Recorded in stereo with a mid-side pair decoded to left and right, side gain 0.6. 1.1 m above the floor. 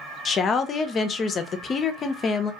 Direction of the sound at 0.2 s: 40° left.